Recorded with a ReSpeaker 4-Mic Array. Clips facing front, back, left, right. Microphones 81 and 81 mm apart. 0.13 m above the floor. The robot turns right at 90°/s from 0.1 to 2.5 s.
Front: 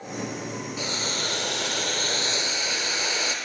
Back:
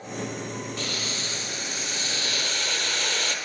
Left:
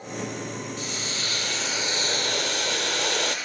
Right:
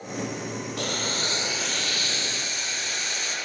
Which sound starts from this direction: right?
Boiling, at 0.8 s.